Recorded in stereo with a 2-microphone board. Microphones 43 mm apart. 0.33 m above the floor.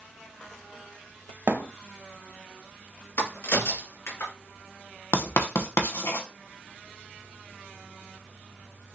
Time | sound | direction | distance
1.5 | a thud | 50° right (ahead or behind) | 0.9 m
3.2 | a crack | 70° left (ahead or behind) | 1.8 m
5.1 | writing | 70° left (ahead or behind) | 1.0 m